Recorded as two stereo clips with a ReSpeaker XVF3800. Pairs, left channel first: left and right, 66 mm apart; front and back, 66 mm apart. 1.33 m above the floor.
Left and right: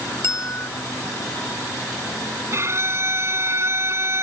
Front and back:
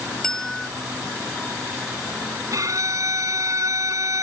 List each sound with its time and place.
0.2 s a bell: 80° left
2.5 s a violin: 140° right